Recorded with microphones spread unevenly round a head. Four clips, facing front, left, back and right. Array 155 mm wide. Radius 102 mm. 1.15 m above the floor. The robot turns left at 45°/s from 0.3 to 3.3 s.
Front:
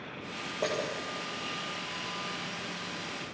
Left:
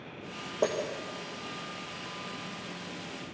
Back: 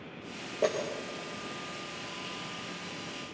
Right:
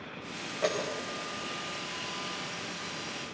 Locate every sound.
0.6 s breaking glass: 120° left, 4.5 m; by 0.8 s 110° left, 4.5 m